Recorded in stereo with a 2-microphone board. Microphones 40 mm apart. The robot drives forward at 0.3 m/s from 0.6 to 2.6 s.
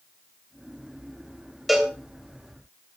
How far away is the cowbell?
About 1.8 m.